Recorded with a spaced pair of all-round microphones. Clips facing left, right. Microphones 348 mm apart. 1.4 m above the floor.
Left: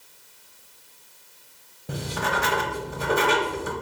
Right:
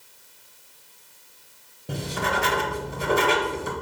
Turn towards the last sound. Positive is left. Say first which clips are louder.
# right 1 dB
turn(degrees=0)  # may be behind; listen again after turning